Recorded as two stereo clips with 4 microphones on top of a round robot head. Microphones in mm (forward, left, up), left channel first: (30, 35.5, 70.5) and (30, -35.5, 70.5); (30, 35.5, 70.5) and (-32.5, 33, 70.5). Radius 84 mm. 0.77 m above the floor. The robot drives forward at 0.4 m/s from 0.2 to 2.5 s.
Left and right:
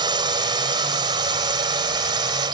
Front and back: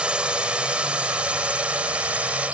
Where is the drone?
100° right; by 2.5 s 105° right.